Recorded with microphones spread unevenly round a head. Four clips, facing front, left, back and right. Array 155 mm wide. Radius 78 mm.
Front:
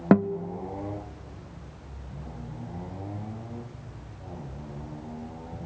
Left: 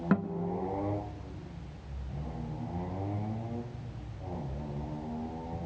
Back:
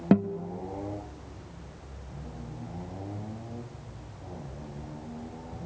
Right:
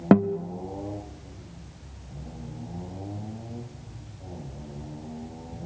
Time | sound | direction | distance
0.1 | a guitar | 60° right | 0.6 m